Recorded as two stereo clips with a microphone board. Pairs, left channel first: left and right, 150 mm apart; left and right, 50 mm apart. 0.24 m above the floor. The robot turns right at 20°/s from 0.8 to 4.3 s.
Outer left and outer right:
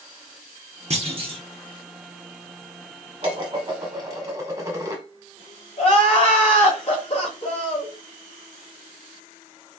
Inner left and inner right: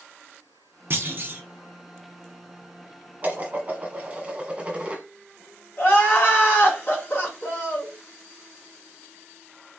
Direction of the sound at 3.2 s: 35° right (ahead or behind).